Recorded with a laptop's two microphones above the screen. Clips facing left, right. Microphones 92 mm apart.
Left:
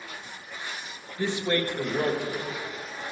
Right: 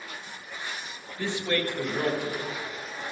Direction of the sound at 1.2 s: 20° left (ahead or behind).